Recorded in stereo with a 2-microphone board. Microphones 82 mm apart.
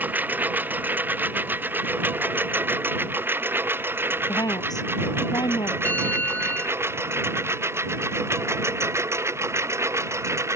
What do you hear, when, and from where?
0.0 s a lawn mower: 20° right (ahead or behind); by 10.6 s 35° right (ahead or behind)
4.3 s a woman speaking: 55° left (ahead or behind)
5.8 s a bell: 20° left (ahead or behind)